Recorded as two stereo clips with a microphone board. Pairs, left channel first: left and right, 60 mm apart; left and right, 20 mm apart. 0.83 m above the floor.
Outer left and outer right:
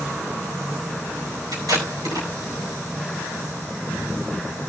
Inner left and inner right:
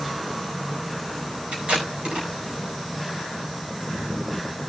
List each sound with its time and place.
1.5 s tape being pulled: 80° right, 5 m